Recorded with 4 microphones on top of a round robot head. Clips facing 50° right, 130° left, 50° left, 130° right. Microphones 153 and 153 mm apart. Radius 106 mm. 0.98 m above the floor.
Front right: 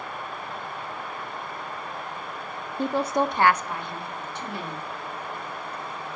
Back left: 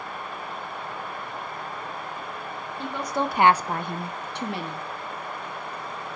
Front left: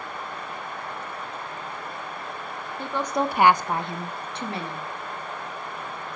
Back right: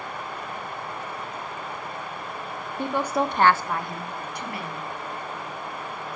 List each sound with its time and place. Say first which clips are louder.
2.8 s a woman speaking: front right 4 dB, back right 1 dB; 60° right, 0.9 m; by 4.9 s 115° left, 2 m